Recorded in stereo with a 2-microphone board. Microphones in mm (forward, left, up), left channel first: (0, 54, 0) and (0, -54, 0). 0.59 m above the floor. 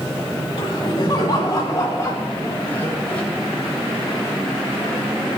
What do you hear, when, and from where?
0.6 s laughter: 45° left (ahead or behind), 5 m; by 3.2 s 15° left (ahead or behind), 3 m